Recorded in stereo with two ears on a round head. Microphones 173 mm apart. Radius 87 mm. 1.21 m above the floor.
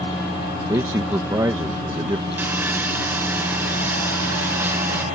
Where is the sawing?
10° right (ahead or behind).